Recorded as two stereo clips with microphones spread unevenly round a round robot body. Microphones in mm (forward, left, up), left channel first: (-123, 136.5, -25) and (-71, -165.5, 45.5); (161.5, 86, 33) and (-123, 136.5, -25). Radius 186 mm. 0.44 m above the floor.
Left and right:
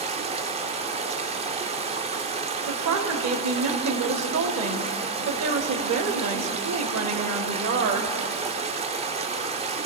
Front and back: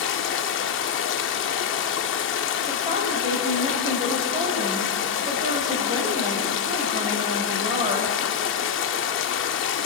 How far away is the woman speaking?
About 1.7 m.